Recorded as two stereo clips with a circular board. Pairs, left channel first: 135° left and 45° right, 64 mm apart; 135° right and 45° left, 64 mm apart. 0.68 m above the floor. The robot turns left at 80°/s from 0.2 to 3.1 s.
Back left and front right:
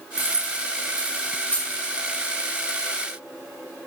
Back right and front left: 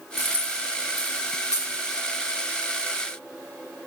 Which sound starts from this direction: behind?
Keys jangling, at 0.2 s.